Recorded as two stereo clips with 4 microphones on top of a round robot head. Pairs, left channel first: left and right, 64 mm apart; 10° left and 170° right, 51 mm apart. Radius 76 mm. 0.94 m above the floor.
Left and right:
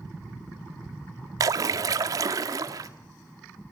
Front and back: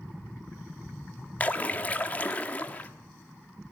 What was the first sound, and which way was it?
A splash, 60° right.